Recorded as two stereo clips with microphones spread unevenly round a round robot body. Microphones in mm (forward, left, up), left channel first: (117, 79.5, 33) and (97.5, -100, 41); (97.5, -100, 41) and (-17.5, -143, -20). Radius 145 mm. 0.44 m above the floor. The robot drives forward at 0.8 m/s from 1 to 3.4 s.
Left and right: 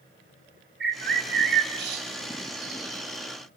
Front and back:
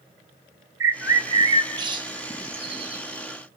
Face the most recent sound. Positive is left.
turn(degrees=-145)